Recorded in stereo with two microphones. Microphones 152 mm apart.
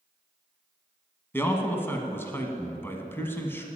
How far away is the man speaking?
About 1.4 m.